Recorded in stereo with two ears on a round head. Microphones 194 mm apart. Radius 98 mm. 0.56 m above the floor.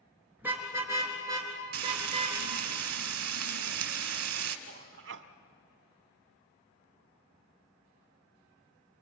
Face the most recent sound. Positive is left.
turn(degrees=-60)  # may be behind; listen again after turning